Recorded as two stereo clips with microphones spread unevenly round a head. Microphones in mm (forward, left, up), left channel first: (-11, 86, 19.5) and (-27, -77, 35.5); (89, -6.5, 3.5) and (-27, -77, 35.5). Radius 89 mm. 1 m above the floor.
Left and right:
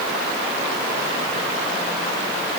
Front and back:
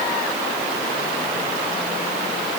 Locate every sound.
Only background noise.